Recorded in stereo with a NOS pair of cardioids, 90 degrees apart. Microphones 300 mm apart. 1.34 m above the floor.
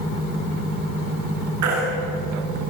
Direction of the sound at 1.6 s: 70° right.